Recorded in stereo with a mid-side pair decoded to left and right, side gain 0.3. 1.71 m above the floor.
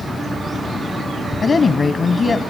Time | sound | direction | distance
1.4 | a woman speaking | 55° left | 0.9 m